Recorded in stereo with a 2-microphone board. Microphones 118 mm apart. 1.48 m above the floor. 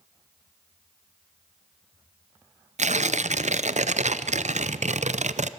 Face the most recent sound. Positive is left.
turn(degrees=-75)  # may be behind; listen again after turning